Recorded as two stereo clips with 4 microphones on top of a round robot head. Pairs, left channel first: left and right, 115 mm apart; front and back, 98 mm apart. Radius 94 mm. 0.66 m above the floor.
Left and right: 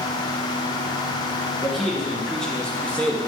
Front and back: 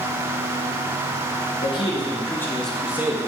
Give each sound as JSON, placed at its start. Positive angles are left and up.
{"t": 1.6, "sound": "a man speaking", "azimuth_deg": 0, "distance_m": 1.7}